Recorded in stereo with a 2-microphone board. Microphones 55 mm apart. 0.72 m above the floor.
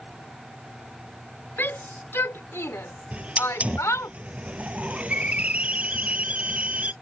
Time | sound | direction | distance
1.6 | a shout | 40° left (ahead or behind) | ?
3.1 | a hiss | 25° right (ahead or behind) | ?